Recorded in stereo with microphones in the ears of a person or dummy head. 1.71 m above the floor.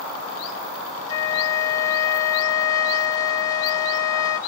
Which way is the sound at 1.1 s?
20° left (ahead or behind).